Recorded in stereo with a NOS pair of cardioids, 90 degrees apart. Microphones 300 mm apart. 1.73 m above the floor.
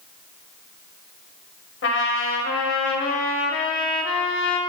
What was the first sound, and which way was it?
A trumpet, 45° left.